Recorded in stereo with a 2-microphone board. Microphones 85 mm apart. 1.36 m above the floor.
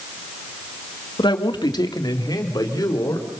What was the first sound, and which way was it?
A man speaking, 70° left (ahead or behind).